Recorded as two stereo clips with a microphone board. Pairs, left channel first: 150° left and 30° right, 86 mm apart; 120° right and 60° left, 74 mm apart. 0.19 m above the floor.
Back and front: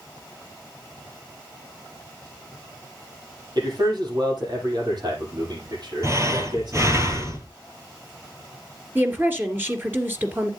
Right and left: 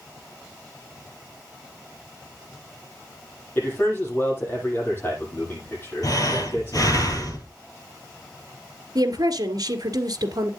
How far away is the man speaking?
About 7.5 m.